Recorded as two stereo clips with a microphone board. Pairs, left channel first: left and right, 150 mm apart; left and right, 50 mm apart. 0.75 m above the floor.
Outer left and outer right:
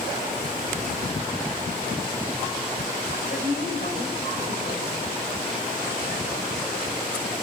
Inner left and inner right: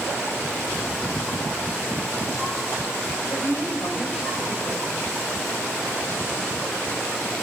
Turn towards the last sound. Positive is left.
turn(degrees=65)  # may be behind; listen again after turning